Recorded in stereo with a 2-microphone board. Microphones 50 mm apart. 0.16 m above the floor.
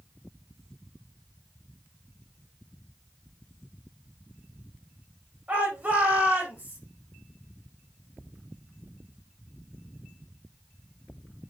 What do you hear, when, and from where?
5.5 s a shout: 35° right (ahead or behind), 7.5 m